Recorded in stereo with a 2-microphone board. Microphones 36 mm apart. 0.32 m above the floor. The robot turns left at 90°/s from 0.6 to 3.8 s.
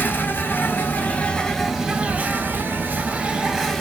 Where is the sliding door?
No sliding door in this recording.